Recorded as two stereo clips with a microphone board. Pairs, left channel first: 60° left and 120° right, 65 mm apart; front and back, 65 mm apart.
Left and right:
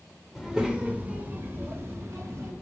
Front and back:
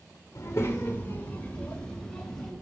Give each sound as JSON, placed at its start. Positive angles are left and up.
{"t": 0.3, "sound": "a child speaking", "azimuth_deg": -35, "distance_m": 1.3}